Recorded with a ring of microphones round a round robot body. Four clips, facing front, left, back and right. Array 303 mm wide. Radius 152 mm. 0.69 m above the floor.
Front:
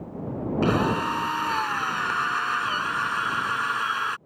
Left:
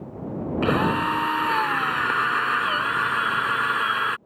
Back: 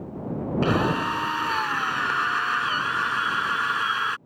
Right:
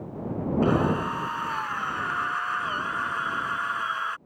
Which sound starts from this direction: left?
A drill, at 0.6 s.